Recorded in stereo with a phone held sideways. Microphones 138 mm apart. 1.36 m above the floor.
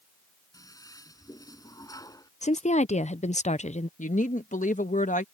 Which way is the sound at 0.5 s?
25° left (ahead or behind).